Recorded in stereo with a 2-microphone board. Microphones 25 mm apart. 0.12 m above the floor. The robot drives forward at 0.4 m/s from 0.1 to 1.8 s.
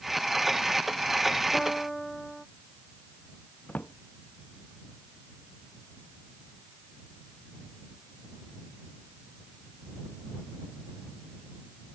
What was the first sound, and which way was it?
A piano, 5° left (ahead or behind).